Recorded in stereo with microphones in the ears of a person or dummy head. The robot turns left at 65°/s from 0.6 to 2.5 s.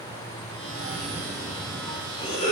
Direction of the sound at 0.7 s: 115° right.